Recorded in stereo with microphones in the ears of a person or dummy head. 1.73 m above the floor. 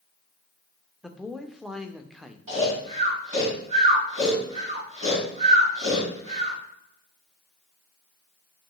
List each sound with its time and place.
1.0 s a man speaking: centre (ahead or behind), 0.6 m
2.5 s snoring: 40° right (ahead or behind), 3 m